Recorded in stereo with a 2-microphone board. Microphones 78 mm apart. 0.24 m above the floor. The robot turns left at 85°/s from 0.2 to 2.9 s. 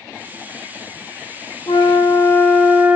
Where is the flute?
90° left, 0.5 m; by 3.0 s 15° right, 0.5 m.